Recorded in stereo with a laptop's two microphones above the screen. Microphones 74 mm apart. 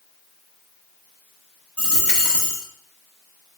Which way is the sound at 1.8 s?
15° left (ahead or behind).